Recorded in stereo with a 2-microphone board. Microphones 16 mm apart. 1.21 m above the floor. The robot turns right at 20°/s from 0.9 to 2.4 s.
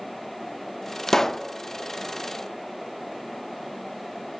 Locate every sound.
1.1 s a pop: 20° left (ahead or behind), 0.7 m; by 1.5 s 30° left (ahead or behind), 0.7 m